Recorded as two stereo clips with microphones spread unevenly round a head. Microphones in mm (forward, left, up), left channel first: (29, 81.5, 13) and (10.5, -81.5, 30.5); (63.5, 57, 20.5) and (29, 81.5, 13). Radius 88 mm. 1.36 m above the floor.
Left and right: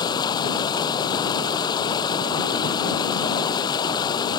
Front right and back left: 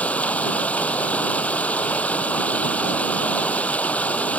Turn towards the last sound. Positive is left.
turn(degrees=15)